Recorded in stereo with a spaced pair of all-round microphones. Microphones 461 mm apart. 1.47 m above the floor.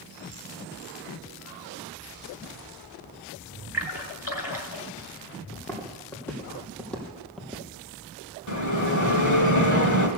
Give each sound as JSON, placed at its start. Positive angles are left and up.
{"t": 3.7, "sound": "a splash", "side_deg": 65, "distance_m": 2.5}
{"t": 5.5, "sound": "footsteps", "side_deg": 5, "distance_m": 4.0}
{"t": 8.5, "sound": "a bell", "side_deg": 40, "distance_m": 1.7}